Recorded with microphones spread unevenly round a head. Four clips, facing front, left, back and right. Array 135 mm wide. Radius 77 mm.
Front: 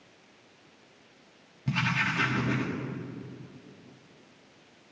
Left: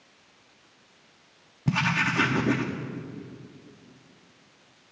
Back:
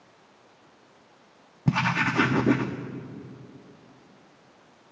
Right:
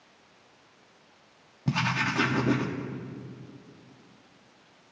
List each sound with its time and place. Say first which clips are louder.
1.7 s writing: left 2 dB, back 5 dB; straight behind, 0.7 m